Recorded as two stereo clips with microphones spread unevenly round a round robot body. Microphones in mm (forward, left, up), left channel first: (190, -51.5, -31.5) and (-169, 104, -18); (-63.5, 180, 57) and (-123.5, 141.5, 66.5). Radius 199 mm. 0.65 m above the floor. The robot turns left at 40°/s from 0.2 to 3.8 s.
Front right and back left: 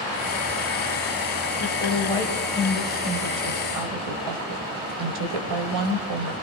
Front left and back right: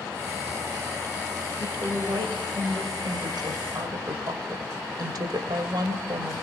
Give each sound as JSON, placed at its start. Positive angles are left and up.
{"t": 1.6, "sound": "a woman speaking", "azimuth_deg": -80, "distance_m": 3.0}